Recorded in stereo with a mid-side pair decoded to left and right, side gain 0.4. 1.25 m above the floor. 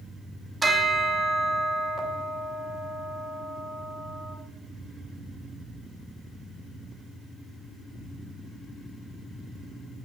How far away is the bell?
About 1.3 m.